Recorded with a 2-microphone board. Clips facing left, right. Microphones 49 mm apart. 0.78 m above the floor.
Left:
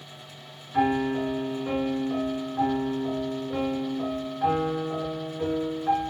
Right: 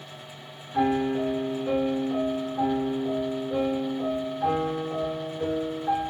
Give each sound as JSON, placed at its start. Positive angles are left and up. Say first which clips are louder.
{"t": 0.7, "sound": "a piano", "louder": "even", "side_deg": 20, "distance_m": 1.6}